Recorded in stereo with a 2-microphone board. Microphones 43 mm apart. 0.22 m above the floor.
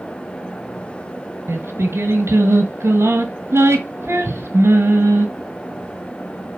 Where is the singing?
80° right, 0.9 m.